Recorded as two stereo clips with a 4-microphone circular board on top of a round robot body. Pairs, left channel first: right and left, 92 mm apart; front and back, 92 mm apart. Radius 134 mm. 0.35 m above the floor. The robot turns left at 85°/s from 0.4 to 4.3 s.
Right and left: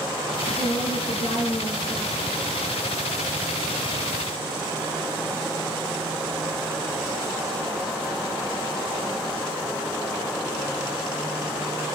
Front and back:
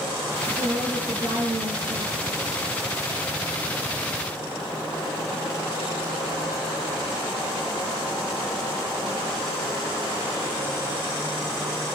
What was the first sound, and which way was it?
A woman speaking, 45° right.